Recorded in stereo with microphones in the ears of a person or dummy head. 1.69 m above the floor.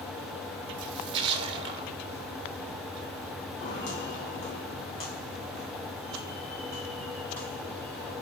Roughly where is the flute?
No flute in this recording.